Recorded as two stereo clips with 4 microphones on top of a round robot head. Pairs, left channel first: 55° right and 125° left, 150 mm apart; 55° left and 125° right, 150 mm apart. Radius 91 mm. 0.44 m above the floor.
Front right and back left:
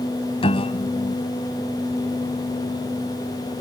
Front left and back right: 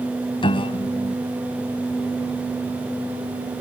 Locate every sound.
0.4 s a piano: straight ahead